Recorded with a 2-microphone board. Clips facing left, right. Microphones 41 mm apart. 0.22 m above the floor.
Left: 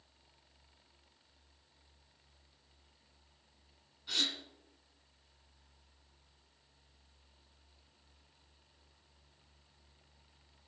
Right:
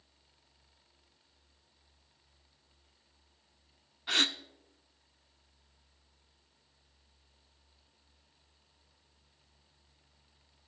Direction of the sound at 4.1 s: 55° right (ahead or behind).